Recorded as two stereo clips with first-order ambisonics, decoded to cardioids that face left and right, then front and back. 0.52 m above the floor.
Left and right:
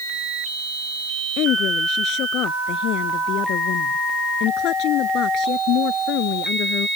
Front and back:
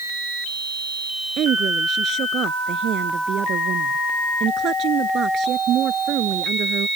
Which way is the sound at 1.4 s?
130° left.